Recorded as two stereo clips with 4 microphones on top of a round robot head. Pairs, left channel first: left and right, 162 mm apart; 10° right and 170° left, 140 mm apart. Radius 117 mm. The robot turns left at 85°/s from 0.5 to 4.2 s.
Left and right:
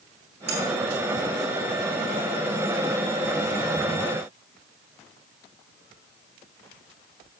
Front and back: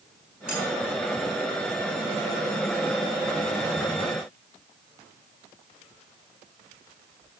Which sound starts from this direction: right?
Cutlery clinking, at 0.5 s.